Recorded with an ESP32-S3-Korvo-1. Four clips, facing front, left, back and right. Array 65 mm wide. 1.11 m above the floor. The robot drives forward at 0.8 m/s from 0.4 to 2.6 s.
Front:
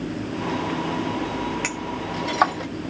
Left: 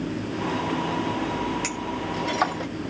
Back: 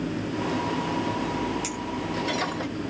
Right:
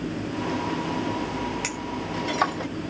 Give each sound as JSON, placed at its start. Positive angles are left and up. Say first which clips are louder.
{"t": 1.6, "sound": "a clink", "louder": "left 2 dB, front 2 dB", "azimuth_deg": 0, "distance_m": 2.0}